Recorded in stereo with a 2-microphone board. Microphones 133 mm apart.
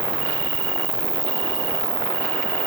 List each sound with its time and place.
0.0 s an insect: 45° right (ahead or behind), 1.0 m